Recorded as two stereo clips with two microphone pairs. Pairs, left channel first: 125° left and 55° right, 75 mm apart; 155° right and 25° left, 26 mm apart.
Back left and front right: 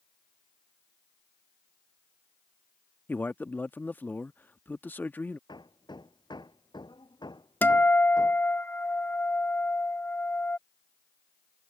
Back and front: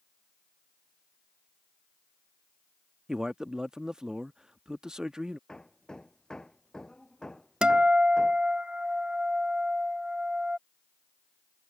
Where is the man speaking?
80° left.